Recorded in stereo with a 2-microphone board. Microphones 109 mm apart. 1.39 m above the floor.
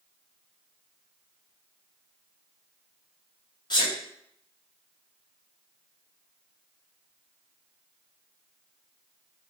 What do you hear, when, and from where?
3.7 s a sneeze: 40° left (ahead or behind), 1.1 m